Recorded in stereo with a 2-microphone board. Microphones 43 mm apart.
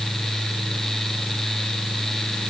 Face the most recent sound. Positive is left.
No sound to turn to.